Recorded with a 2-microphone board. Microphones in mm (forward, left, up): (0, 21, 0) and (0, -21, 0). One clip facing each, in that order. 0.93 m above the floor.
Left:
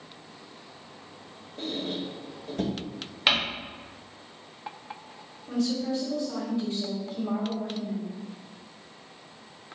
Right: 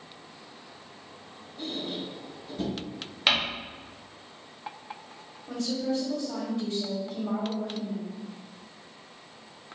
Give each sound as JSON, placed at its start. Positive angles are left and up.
{"t": 1.6, "sound": "a squeak", "side_deg": 80, "distance_m": 0.6}
{"t": 3.3, "sound": "crumpling", "side_deg": 5, "distance_m": 0.7}
{"t": 5.5, "sound": "a woman speaking", "side_deg": -60, "distance_m": 1.9}